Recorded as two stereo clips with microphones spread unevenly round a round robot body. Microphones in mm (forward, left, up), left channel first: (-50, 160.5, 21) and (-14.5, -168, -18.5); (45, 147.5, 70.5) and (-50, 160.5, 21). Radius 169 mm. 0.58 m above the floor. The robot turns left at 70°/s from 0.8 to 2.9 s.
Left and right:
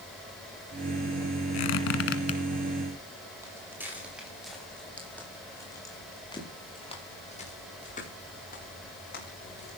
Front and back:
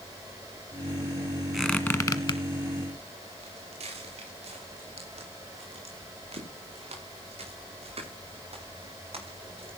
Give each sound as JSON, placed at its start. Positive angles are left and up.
{"t": 1.5, "sound": "a squeak", "azimuth_deg": 80, "distance_m": 1.7}
{"t": 3.4, "sound": "footsteps", "azimuth_deg": -165, "distance_m": 7.5}